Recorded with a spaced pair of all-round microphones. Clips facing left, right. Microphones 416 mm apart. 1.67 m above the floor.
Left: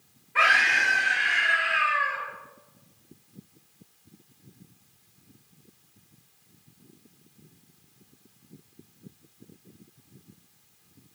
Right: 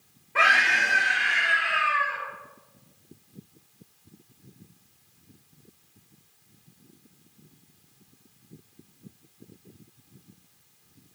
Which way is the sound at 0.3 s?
60° right (ahead or behind).